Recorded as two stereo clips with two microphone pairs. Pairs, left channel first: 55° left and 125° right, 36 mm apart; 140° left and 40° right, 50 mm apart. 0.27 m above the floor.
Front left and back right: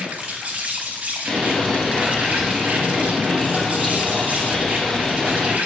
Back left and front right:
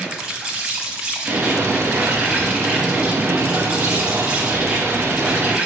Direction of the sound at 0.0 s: 105° right.